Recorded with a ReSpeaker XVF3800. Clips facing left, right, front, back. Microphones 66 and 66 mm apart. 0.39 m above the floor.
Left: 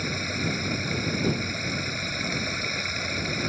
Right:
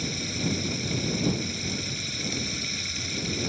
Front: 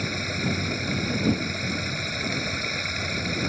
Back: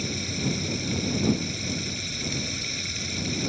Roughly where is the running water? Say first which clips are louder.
Left 2 dB, front 2 dB; ahead left.